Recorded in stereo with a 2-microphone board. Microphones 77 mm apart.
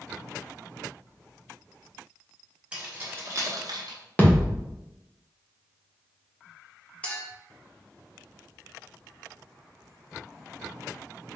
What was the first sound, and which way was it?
Keys jangling, 15° right (ahead or behind).